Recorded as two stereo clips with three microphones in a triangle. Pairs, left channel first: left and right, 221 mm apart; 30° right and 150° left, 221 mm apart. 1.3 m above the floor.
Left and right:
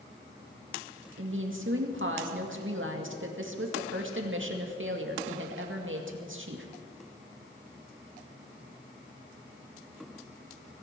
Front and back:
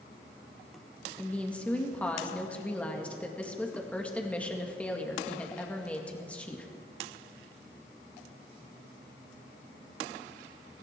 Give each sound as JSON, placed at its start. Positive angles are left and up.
{"t": 1.2, "sound": "a woman speaking", "azimuth_deg": -115, "distance_m": 2.0}